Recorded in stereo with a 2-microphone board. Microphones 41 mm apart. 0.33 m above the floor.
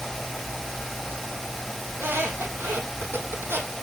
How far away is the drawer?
No drawer in this recording.